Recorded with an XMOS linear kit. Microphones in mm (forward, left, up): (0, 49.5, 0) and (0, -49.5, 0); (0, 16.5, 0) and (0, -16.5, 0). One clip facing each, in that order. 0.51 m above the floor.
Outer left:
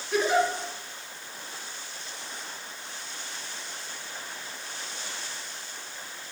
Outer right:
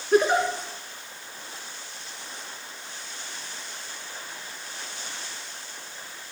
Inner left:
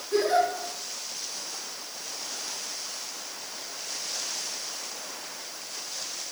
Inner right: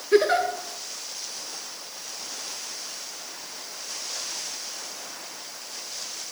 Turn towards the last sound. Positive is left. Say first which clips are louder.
# outer right 4 dB, inner right 3 dB
turn(degrees=-65)  # may be behind; listen again after turning